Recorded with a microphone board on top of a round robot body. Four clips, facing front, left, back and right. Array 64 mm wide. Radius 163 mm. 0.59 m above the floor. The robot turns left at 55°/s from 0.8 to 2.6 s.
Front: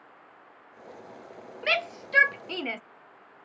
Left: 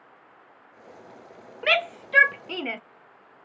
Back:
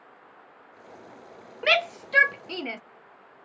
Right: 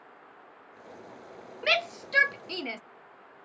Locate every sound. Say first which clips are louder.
1.6 s a shout: left 4 dB, back 5 dB; 125° left; by 2.8 s 75° left